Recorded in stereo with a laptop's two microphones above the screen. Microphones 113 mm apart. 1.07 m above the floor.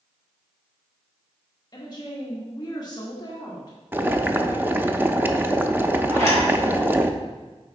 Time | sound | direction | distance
1.7 | a woman speaking | 40° left (ahead or behind) | 1.2 m
3.9 | boiling | 20° right (ahead or behind) | 0.6 m
6.1 | a zipper | 75° right (ahead or behind) | 3 m